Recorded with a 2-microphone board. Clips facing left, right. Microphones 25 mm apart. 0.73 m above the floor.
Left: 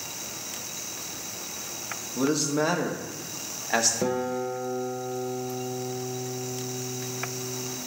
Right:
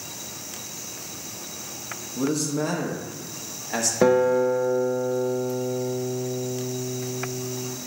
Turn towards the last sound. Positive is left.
turn(degrees=-50)  # may be behind; listen again after turning